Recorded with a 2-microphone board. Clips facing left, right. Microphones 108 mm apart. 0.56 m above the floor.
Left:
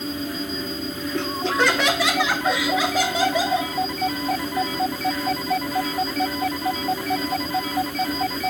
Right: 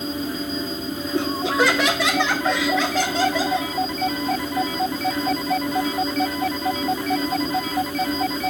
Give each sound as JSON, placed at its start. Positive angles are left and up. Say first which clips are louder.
{"t": 1.1, "sound": "laughter", "louder": "right 2 dB", "side_deg": -15, "distance_m": 1.2}